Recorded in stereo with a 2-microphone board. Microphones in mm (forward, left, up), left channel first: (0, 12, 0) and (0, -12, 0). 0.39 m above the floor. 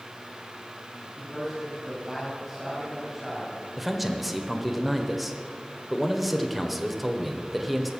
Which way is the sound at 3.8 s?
5° right (ahead or behind).